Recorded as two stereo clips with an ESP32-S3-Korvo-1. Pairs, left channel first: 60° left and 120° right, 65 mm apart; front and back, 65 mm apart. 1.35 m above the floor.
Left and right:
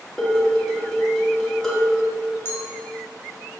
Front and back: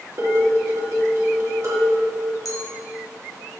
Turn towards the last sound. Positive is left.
turn(degrees=15)